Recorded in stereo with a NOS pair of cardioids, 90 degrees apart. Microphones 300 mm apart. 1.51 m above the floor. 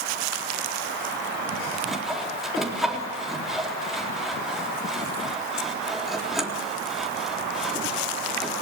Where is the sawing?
Straight ahead, 4 m.